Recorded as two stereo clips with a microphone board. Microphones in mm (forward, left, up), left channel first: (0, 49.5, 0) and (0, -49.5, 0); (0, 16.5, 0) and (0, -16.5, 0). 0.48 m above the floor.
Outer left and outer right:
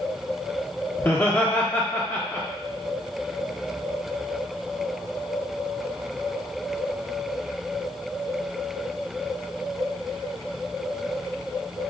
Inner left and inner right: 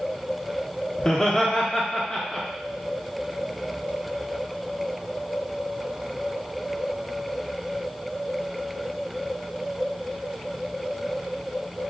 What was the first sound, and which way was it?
Laughter, 25° left (ahead or behind).